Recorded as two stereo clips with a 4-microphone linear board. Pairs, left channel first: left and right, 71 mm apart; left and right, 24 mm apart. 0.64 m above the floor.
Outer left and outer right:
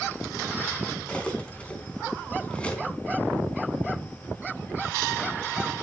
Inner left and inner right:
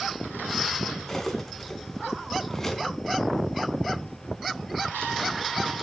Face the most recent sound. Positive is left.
turn(degrees=15)  # may be behind; listen again after turning